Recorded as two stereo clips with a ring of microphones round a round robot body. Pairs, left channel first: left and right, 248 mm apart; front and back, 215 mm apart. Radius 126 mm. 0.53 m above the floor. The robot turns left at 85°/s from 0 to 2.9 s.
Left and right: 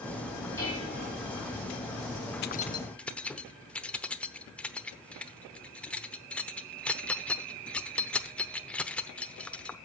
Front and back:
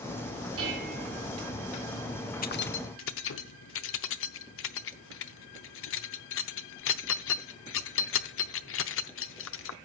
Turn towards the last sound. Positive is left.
turn(degrees=5)